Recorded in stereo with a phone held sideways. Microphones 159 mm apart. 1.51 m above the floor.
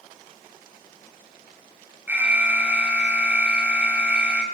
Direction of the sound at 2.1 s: 10° right (ahead or behind).